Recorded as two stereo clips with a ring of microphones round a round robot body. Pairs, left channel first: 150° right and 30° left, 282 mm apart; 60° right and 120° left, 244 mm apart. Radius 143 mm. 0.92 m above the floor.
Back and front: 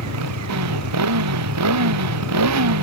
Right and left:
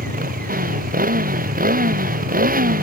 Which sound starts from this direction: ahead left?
A motorcycle, at 0.0 s.